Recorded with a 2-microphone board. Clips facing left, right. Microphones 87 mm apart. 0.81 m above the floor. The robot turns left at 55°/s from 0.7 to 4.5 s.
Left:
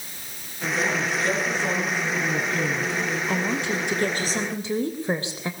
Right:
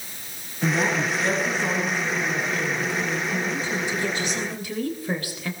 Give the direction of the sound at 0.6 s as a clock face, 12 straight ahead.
4 o'clock.